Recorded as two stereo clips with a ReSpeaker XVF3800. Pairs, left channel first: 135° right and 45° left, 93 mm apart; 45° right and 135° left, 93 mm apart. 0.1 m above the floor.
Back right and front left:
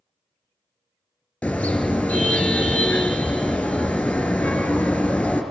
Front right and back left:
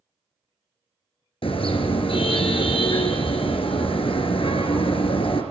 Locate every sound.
1.4 s a car horn: 55° right, 3 m